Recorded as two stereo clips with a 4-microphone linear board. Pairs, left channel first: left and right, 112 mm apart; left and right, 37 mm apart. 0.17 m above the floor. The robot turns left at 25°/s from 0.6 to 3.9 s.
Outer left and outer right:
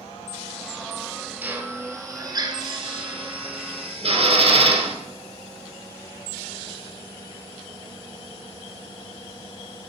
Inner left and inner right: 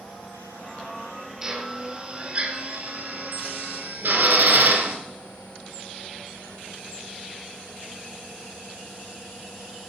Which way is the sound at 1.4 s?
15° right (ahead or behind).